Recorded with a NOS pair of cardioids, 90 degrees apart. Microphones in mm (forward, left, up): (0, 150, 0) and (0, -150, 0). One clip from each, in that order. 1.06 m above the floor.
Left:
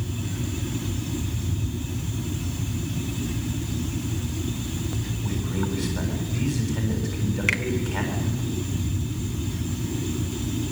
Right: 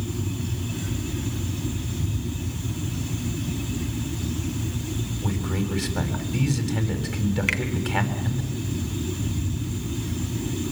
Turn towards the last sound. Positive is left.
turn(degrees=0)